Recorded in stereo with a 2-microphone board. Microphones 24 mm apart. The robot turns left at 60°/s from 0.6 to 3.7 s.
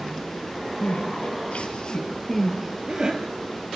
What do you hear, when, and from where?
0.8 s crying: 75° left (ahead or behind), 3.5 m; by 3.2 s 40° right (ahead or behind), 3.5 m